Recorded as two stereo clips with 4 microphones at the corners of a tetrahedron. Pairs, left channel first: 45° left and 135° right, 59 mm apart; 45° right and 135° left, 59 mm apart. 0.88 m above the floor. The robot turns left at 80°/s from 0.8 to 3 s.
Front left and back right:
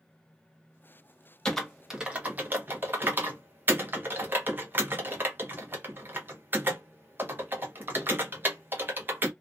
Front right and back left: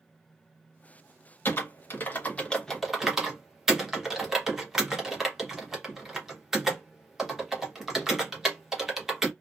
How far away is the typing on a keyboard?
About 0.9 m.